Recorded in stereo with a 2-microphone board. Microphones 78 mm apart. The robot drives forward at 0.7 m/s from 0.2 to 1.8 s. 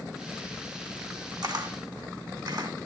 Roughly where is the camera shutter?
Right.